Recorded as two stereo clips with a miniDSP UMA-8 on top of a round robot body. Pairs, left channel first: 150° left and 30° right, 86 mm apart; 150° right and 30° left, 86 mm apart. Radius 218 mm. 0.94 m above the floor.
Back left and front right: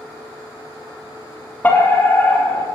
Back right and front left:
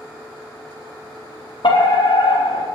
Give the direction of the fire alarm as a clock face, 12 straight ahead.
5 o'clock.